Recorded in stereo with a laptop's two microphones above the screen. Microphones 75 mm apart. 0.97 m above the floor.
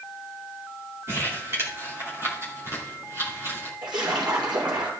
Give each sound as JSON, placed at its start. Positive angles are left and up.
{"t": 1.1, "sound": "crumpling", "side_deg": -35, "distance_m": 2.5}
{"t": 3.8, "sound": "a splash", "side_deg": -75, "distance_m": 5.0}